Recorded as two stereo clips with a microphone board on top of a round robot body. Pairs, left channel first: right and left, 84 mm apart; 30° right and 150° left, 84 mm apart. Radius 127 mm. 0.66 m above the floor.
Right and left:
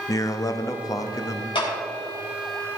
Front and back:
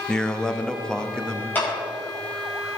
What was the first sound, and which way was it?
A man speaking, 105° right.